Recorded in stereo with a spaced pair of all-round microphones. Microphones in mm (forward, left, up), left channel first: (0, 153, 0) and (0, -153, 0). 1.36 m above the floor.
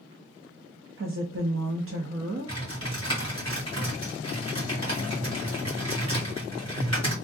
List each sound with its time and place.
1.0 s a woman speaking: 45° right (ahead or behind), 0.6 m
2.5 s typing on a keyboard: 65° right (ahead or behind), 1.9 m